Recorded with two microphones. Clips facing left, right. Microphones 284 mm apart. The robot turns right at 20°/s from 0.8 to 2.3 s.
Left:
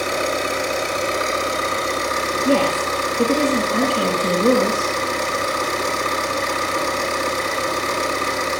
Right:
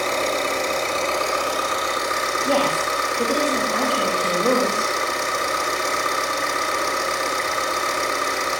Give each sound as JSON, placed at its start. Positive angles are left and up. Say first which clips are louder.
{"t": 0.0, "sound": "an engine running", "louder": "left 1 dB", "side_deg": 15, "distance_m": 6.0}
{"t": 2.5, "sound": "a woman speaking", "louder": "left 4 dB", "side_deg": 35, "distance_m": 7.0}